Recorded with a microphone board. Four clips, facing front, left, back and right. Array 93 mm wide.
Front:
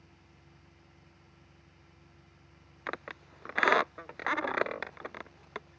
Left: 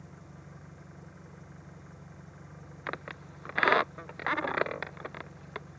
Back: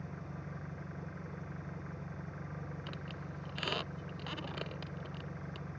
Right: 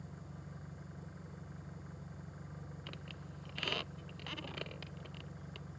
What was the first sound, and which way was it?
An engine running, 170° left.